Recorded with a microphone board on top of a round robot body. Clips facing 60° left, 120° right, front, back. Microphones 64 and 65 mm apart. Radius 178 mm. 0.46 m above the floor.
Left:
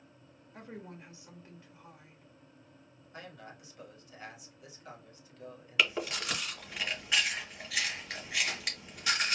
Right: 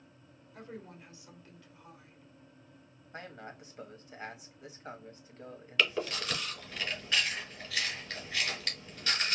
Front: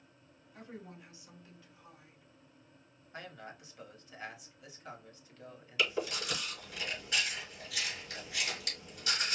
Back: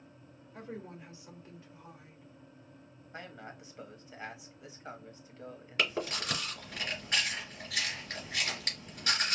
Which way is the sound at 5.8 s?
135° left.